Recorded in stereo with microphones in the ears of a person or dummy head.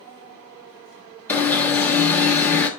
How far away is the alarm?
About 1.0 m.